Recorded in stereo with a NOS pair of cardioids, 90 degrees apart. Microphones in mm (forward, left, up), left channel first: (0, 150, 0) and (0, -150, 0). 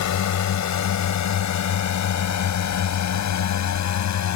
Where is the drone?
65° left.